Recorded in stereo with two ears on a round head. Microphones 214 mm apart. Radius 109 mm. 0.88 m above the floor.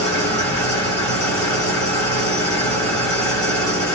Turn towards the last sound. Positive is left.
turn(degrees=10)  # may be behind; listen again after turning